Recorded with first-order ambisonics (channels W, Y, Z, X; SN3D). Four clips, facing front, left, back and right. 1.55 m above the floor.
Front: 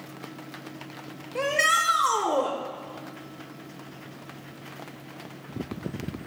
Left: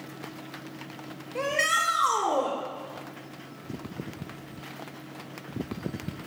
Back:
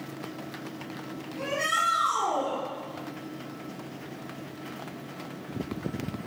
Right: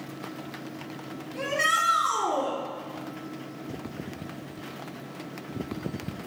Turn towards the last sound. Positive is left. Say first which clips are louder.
# even, front 5 dB
turn(degrees=30)